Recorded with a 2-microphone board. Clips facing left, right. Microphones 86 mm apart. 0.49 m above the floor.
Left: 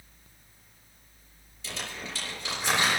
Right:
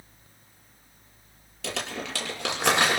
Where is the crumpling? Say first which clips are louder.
Right 6 dB; 65° right (ahead or behind), 6.5 m.